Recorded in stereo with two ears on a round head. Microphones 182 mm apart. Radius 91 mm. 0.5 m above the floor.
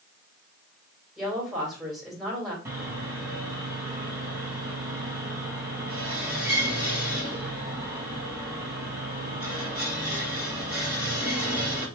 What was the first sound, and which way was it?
A woman speaking, centre (ahead or behind).